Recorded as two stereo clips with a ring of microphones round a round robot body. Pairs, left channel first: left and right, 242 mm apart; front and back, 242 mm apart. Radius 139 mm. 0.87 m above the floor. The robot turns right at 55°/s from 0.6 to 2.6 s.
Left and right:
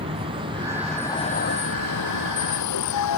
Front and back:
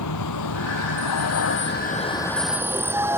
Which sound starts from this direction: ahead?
A vehicle, at 0.0 s.